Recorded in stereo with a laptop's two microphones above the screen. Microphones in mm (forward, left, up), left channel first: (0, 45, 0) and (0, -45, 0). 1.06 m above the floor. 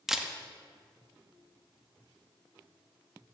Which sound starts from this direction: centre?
A camera shutter, at 0.1 s.